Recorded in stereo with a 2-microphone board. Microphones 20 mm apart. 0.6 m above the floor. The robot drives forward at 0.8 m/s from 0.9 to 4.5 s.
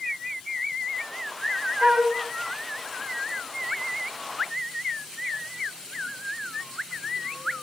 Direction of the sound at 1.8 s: 45° right (ahead or behind).